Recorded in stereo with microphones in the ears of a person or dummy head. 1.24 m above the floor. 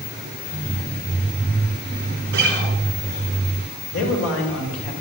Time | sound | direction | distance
2.3 | a guitar | 60° right (ahead or behind) | 3.5 m
3.9 | a man speaking | 70° left (ahead or behind) | 5.5 m